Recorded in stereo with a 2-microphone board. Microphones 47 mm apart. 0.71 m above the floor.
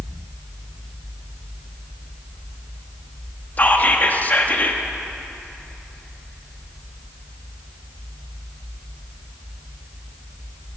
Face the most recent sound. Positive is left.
turn(degrees=40)  # may be behind; listen again after turning